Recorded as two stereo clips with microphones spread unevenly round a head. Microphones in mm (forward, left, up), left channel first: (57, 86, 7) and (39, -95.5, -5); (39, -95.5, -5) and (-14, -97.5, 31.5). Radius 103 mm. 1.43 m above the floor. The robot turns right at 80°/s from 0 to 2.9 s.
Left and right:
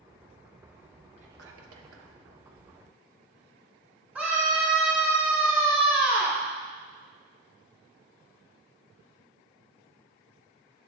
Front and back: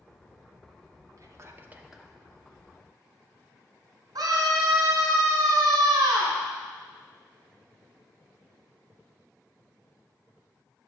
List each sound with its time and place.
1.2 s whispering: 160° right, 1.0 m; by 2.1 s 80° right, 1.0 m
4.2 s a scream: straight behind, 2.0 m